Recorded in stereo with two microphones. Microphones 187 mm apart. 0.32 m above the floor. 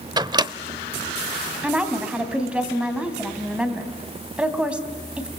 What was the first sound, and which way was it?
A microwave, 20° right (ahead or behind).